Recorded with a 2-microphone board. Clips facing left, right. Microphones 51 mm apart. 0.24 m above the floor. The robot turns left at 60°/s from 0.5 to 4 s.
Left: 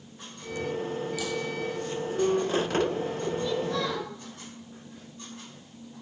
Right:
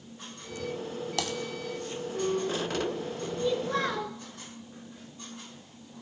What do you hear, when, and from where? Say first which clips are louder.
1.2 s typing on a keyboard: even; 75° right (ahead or behind), 1.0 m; by 1.3 s 65° right (ahead or behind), 1.0 m
3.4 s a child speaking: right 4 dB; 10° right, 3 m; by 4.2 s 45° right, 3 m